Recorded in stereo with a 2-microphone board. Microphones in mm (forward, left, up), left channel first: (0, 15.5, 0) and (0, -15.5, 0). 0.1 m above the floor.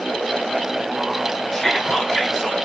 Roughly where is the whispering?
Centre.